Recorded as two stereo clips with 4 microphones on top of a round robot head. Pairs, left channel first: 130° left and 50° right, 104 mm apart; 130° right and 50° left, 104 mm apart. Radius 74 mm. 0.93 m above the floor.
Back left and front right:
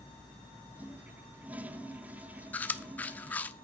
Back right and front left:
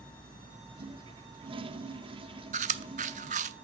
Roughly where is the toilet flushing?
Ahead left.